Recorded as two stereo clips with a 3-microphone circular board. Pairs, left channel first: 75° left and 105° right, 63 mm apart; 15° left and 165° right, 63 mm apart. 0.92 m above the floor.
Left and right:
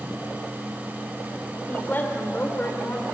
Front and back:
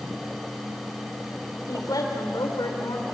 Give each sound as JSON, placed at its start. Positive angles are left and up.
{"t": 1.7, "sound": "a woman speaking", "azimuth_deg": 15, "distance_m": 3.5}